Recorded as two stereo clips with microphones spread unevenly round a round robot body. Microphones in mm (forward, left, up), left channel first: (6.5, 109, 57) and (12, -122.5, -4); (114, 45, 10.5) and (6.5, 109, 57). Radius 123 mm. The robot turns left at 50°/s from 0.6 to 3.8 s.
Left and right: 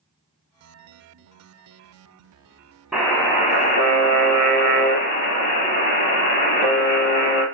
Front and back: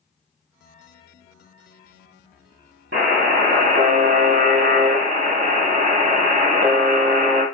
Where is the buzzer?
Straight behind, 1.9 m; by 7.4 s 135° left, 1.9 m.